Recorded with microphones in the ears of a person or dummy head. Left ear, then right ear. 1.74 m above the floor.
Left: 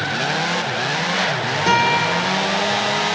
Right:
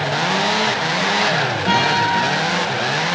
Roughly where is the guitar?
Left.